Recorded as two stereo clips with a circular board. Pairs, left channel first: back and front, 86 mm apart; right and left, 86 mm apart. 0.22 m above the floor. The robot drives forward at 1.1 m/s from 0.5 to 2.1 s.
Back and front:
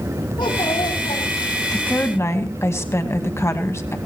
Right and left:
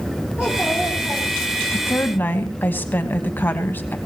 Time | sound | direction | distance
0.4 | a child speaking | 170° left | 4.5 m
1.7 | a woman speaking | 115° right | 1.1 m